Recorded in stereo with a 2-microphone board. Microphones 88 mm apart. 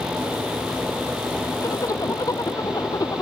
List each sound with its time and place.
1.6 s a zipper: 40° left (ahead or behind)